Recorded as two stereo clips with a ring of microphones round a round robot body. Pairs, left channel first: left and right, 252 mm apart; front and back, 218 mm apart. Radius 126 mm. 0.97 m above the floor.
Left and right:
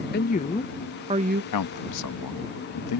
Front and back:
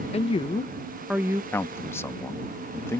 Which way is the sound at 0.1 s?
55° left.